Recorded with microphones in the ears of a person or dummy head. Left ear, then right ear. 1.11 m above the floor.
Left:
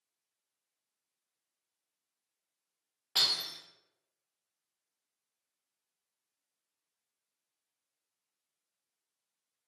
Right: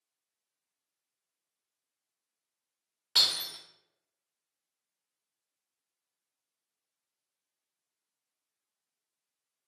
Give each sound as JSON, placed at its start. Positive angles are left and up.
{"t": 3.1, "sound": "breaking glass", "side_deg": -10, "distance_m": 0.7}